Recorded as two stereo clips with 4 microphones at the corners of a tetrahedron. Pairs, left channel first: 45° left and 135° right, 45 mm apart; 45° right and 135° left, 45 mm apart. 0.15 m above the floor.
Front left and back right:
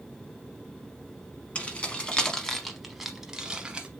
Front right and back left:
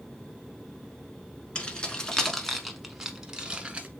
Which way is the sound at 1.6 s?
5° left.